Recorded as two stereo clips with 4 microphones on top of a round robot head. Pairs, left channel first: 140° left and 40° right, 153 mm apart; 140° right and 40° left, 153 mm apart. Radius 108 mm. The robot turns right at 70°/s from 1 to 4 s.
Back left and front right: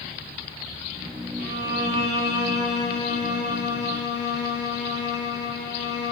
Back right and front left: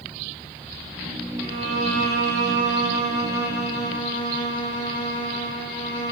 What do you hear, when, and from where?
1.4 s a violin: 25° right, 3 m; by 6.1 s 155° left, 3 m